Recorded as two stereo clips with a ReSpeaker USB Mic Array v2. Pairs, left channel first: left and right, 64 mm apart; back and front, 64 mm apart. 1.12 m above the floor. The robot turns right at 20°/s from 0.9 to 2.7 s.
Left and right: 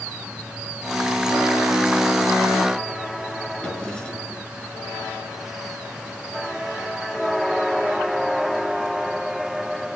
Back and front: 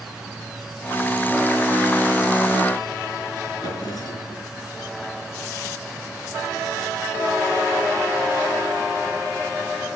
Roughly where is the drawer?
Behind.